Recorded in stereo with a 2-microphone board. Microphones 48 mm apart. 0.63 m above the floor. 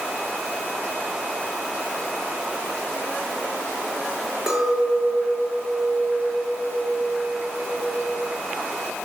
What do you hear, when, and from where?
4.5 s a clink: 5° right (ahead or behind), 6 m